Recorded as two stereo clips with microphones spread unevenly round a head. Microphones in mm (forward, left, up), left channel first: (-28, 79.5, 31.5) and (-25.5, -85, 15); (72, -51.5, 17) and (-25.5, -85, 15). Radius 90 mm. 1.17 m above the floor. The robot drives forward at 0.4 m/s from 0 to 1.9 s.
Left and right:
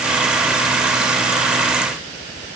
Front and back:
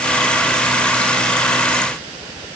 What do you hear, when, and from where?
Only background noise.